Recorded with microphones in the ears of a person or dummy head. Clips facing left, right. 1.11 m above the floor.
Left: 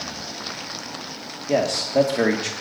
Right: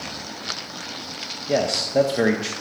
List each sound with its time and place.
1.5 s a man speaking: centre (ahead or behind), 1.1 m